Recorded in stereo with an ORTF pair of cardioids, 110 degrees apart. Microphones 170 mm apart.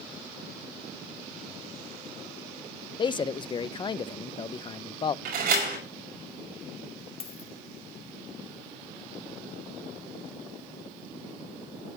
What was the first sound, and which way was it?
A man speaking, 30° left.